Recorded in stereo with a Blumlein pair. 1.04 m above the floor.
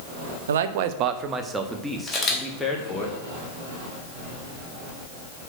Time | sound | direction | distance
0.5 | a man speaking | 65° right | 0.9 m
2.1 | a camera shutter | 15° left | 3 m